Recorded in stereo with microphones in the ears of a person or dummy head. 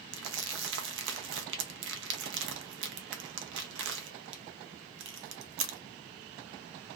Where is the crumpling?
65° right (ahead or behind), 0.5 m.